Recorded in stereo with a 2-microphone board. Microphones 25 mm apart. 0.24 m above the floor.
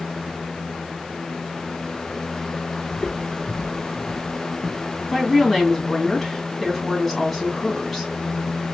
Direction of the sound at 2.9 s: 25° left (ahead or behind).